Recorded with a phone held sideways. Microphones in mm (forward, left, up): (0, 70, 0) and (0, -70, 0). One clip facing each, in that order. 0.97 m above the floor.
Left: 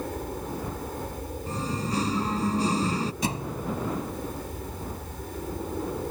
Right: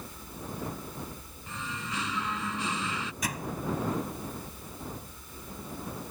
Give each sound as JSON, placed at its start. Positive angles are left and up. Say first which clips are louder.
{"t": 0.0, "sound": "an aircraft", "louder": "left 10 dB", "side_deg": 65}
{"t": 1.5, "sound": "singing", "louder": "left 8 dB", "side_deg": 40}
{"t": 3.2, "sound": "a thud", "louder": "left 5 dB", "side_deg": 30}